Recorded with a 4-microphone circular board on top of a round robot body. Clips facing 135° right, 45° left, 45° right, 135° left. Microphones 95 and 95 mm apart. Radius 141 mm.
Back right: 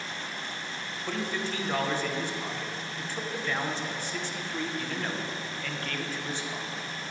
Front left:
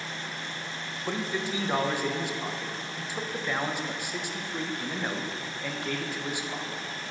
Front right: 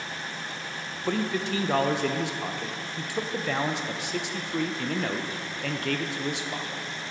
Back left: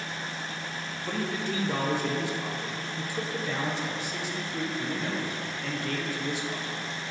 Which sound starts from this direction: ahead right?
A man speaking, at 1.1 s.